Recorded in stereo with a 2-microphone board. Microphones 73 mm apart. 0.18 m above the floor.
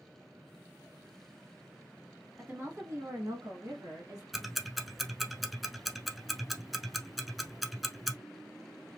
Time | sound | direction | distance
2.4 | a woman speaking | 25° right (ahead or behind) | 1.0 m
4.3 | ticking | centre (ahead or behind) | 0.7 m